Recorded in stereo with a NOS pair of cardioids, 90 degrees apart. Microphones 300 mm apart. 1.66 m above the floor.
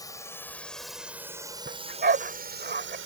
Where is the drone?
10° left; by 3.1 s 45° right.